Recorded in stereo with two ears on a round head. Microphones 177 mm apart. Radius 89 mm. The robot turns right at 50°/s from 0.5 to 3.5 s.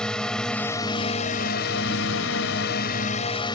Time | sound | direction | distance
0.0 | a drone | 5° left | ?